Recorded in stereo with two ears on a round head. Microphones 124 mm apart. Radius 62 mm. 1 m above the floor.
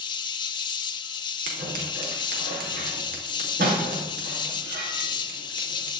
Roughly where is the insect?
Left.